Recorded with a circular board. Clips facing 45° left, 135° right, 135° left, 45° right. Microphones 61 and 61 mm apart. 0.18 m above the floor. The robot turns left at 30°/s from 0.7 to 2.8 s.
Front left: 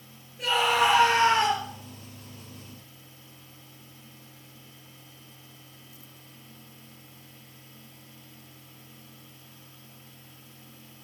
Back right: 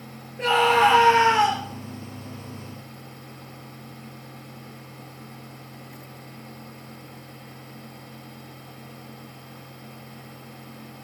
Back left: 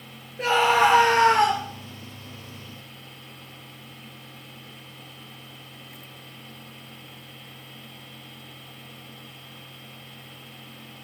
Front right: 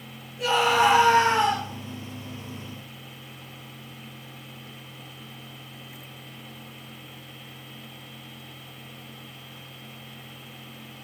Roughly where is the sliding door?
No sliding door in this recording.